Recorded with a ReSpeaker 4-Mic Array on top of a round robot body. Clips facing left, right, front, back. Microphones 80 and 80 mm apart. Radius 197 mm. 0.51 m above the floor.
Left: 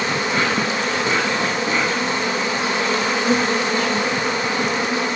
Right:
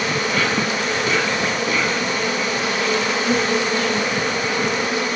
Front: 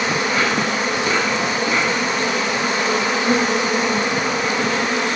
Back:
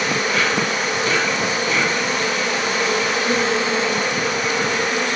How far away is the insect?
About 1.9 m.